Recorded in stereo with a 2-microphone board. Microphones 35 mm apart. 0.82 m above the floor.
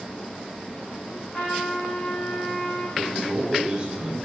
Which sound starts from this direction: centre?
A man speaking, at 3.0 s.